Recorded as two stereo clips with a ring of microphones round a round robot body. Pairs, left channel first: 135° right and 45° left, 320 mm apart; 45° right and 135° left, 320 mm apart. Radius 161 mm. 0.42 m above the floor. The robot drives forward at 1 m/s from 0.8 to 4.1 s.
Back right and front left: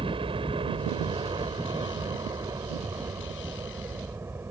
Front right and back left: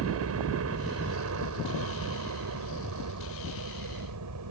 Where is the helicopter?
115° left; by 4.5 s 125° left.